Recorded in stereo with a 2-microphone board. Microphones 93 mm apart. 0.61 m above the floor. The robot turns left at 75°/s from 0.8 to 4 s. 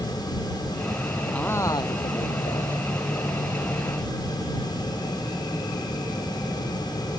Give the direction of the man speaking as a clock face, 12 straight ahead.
6 o'clock.